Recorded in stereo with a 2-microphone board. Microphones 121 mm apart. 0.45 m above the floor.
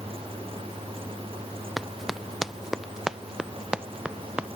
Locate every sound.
1.8 s running footsteps: centre (ahead or behind); by 4.5 s 10° right (ahead or behind)